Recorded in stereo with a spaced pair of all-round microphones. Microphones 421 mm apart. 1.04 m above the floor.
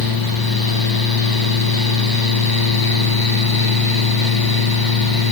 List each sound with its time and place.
0.0 s a fan: 55° left (ahead or behind), 0.9 m